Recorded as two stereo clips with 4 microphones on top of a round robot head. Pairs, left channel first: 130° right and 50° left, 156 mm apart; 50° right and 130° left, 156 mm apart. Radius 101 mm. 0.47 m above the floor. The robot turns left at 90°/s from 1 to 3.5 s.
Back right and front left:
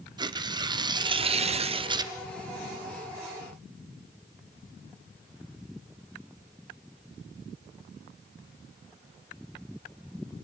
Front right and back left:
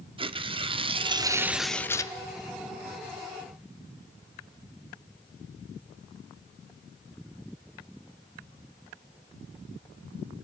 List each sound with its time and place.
0.2 s tearing paper: 95° left, 1.1 m; by 2.1 s 5° right, 1.1 m